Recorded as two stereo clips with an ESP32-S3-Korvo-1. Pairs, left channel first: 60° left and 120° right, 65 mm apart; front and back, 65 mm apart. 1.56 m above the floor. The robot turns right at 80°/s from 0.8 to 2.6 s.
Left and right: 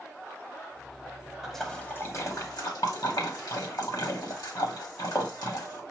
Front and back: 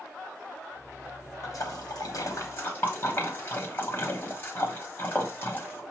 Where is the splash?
35° right, 1.4 m; by 5.8 s 55° left, 1.4 m.